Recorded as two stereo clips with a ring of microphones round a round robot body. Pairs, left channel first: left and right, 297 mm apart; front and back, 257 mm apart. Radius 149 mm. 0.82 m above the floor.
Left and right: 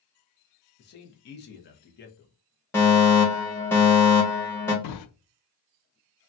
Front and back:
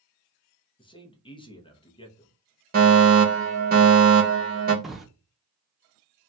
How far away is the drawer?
About 0.6 m.